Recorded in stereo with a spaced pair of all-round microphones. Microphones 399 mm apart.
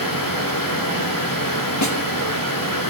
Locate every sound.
0.0 s a fan: 55° left (ahead or behind), 2.5 m
1.8 s a snare drum: 45° left (ahead or behind), 1.4 m